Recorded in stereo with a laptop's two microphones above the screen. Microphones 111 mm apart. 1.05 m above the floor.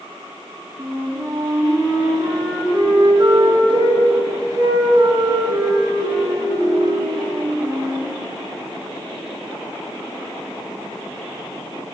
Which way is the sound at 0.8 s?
40° right (ahead or behind).